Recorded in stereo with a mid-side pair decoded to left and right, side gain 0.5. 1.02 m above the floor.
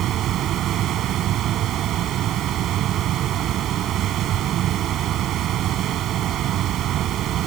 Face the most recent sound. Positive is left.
turn(degrees=-65)